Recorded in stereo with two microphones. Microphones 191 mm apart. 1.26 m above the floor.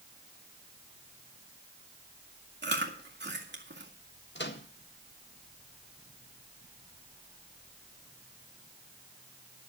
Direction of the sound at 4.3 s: 70° left (ahead or behind).